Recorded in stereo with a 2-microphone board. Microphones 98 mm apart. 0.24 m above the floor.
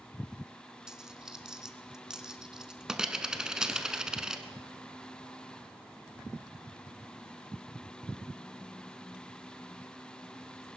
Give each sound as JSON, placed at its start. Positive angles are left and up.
{"t": 0.9, "sound": "a dropped coin", "side_deg": -5, "distance_m": 0.9}